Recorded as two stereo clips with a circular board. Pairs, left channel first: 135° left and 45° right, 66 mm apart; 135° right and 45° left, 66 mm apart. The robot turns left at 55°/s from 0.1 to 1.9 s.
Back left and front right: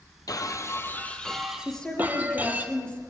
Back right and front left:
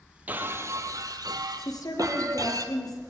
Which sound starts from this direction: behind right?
A woman speaking, at 1.6 s.